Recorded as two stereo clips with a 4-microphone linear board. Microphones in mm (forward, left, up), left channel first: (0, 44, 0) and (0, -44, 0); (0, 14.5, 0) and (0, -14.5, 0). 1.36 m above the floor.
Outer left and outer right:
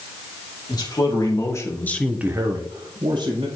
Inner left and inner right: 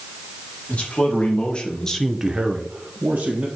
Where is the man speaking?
45° left (ahead or behind), 2.5 m; by 3.5 s 65° right (ahead or behind), 1.9 m.